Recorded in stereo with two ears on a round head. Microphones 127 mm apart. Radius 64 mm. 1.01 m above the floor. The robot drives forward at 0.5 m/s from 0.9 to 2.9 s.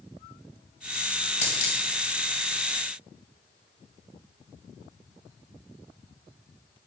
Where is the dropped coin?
45° left (ahead or behind), 2.5 m; by 1.8 s 50° left (ahead or behind), 2.5 m.